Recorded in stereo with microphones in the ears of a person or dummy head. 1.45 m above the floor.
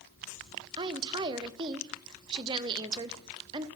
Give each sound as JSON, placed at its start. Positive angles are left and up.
{"t": 0.8, "sound": "a woman speaking", "side_deg": -25, "distance_m": 0.6}